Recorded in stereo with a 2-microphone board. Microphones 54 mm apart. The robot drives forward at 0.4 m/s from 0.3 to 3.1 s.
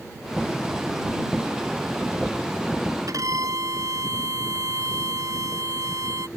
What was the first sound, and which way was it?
A violin, 80° right.